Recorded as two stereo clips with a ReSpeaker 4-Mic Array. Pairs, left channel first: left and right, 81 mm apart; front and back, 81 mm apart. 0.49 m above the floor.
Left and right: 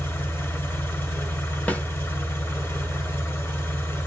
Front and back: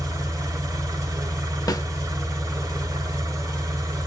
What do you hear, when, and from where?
0.0 s an engine running: 145° left, 1.6 m
1.7 s a snare drum: 20° left, 0.8 m